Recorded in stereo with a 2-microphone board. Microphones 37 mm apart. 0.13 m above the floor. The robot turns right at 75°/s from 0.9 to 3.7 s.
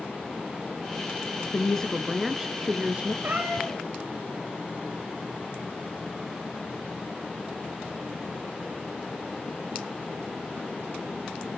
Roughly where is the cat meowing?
Ahead right.